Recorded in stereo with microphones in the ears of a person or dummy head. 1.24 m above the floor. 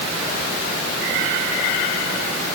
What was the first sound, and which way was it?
Only background noise.